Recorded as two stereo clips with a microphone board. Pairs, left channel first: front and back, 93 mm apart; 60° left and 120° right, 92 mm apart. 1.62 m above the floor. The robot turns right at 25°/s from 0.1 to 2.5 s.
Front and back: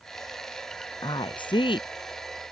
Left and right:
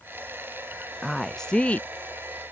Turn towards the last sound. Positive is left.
turn(degrees=5)